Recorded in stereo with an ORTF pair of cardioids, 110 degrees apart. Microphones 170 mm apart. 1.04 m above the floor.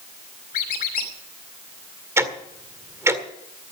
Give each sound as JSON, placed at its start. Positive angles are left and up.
{"t": 0.5, "sound": "a squeak", "azimuth_deg": 60, "distance_m": 2.5}
{"t": 2.2, "sound": "ticking", "azimuth_deg": -15, "distance_m": 1.8}